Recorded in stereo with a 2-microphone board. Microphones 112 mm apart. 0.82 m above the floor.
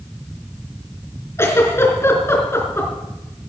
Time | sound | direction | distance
1.4 | a giggle | 25° left (ahead or behind) | 3.5 m